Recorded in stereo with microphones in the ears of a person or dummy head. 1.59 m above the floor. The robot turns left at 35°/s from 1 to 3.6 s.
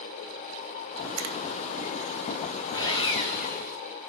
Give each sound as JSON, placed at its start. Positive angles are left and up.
{"t": 1.2, "sound": "a finger snap", "side_deg": -80, "distance_m": 1.6}
{"t": 2.7, "sound": "sawing", "azimuth_deg": 165, "distance_m": 6.0}